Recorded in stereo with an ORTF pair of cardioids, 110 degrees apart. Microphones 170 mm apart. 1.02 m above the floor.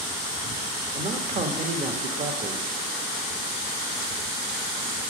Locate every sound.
0.9 s a man speaking: 40° right, 1.2 m